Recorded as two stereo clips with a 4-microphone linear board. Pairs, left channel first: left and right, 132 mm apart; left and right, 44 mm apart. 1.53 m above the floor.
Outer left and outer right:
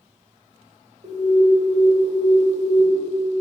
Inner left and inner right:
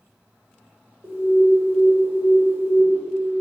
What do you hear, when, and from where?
1.0 s an alarm: 60° right (ahead or behind), 1.3 m